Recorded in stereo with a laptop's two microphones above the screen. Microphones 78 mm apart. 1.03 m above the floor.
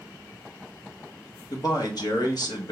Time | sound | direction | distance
1.5 | a man speaking | 60° left (ahead or behind) | 1.3 m